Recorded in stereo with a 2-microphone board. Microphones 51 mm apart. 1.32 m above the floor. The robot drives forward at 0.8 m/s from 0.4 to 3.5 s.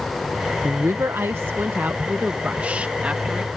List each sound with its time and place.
0.6 s a woman speaking: 70° right (ahead or behind); by 3.5 s 25° right (ahead or behind)